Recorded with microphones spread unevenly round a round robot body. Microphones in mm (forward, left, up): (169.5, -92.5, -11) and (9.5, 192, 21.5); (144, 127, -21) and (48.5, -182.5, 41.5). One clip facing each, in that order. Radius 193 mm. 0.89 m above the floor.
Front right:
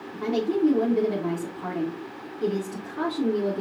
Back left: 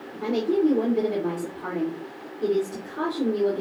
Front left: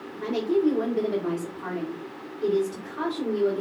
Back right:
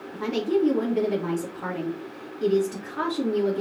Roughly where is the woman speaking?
Behind right.